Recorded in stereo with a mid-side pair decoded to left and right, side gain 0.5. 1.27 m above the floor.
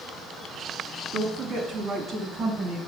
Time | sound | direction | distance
1.1 | a woman speaking | 55° right | 2.5 m